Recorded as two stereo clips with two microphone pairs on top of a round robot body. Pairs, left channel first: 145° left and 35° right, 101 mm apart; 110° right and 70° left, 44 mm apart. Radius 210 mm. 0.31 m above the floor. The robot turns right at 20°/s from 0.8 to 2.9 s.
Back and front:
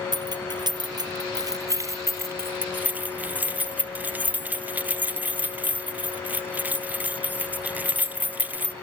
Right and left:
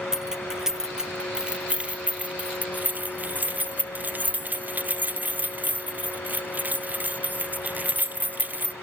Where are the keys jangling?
5° right, 0.7 m; by 8.7 s 40° left, 0.7 m.